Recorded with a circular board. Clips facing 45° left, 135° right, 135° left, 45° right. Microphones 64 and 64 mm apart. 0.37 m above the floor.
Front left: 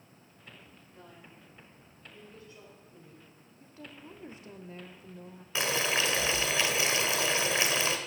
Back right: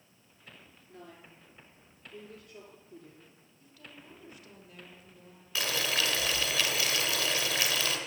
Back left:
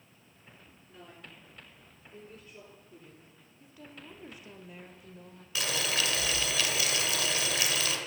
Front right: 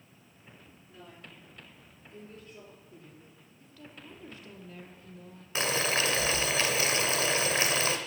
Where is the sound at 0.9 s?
145° right, 7.5 m.